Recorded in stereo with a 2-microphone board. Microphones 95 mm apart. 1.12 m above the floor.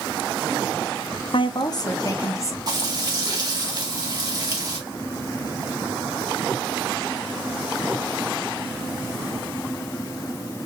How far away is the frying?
About 1.8 m.